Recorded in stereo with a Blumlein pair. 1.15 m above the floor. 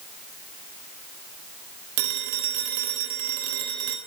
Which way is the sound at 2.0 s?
50° right.